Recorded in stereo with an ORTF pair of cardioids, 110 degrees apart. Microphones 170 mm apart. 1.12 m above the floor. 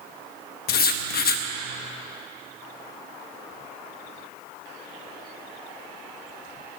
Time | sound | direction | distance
0.7 | writing | 60° left | 1.1 m